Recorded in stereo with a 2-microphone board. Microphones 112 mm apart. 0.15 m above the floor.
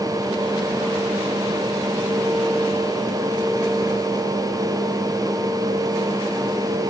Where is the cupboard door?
I don't hear a cupboard door.